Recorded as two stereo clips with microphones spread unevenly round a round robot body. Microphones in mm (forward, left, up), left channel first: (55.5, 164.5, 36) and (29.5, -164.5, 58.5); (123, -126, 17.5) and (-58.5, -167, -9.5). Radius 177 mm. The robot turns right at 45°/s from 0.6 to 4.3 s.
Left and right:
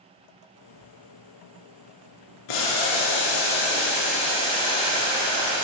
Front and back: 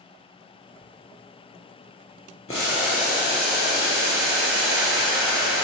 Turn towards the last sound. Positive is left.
turn(degrees=165)